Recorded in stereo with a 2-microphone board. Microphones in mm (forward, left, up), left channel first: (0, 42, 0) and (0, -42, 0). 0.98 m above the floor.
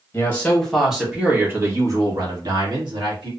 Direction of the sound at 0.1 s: 20° left (ahead or behind).